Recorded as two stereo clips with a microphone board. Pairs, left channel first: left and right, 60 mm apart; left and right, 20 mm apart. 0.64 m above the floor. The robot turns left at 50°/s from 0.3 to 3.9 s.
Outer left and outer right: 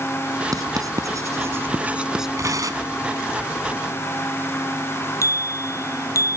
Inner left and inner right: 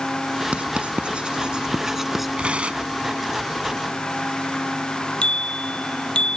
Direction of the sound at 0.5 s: 80° right.